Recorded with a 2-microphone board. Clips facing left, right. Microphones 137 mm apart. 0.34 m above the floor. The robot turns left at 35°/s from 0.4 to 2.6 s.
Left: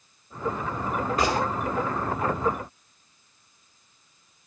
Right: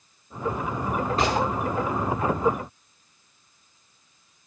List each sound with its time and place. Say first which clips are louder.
1.2 s a gunshot: right 1 dB; 30° right (ahead or behind), 4.5 m; by 1.4 s 20° right (ahead or behind), 4.5 m